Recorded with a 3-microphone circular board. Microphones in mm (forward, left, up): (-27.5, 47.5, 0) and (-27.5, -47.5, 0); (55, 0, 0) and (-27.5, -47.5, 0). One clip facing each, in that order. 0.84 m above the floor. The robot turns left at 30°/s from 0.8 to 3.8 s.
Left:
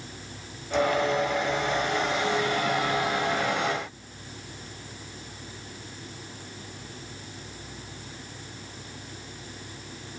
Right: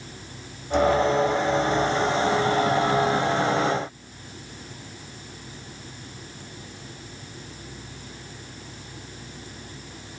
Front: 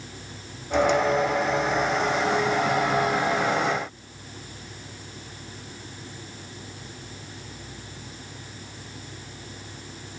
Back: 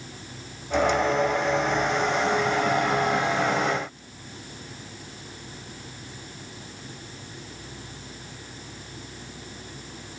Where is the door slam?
I don't hear a door slam.